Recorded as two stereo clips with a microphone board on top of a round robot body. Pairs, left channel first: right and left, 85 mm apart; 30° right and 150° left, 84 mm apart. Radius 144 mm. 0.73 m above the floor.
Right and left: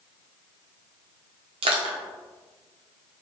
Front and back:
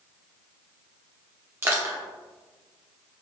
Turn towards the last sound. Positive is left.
turn(degrees=85)